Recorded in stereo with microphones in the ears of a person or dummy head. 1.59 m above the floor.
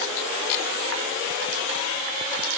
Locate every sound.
Only background noise.